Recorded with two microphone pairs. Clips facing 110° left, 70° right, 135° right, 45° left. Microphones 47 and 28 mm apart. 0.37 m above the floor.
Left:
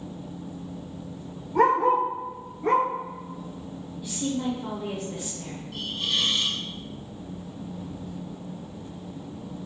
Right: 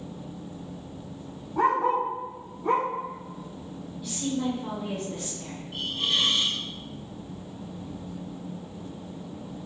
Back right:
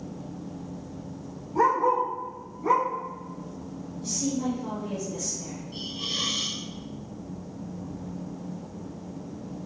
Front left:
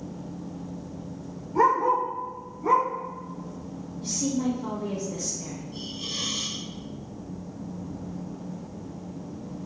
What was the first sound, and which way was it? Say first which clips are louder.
A dog barking: left 3 dB, front left 1 dB; 120° left.